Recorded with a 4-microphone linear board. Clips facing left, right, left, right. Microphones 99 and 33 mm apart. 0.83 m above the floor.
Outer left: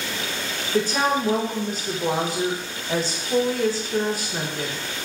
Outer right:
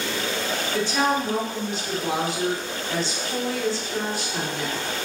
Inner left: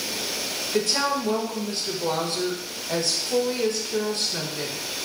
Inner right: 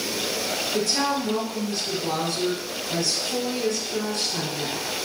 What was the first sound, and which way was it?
A woman speaking, 40° left (ahead or behind).